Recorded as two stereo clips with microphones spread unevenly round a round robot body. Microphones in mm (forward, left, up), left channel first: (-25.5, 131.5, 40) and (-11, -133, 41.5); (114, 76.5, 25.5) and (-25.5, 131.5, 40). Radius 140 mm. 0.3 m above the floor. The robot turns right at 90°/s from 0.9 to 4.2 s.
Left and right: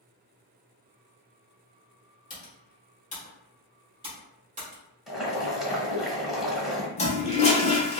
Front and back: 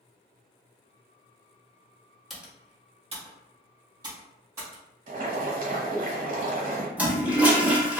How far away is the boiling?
About 1.3 m.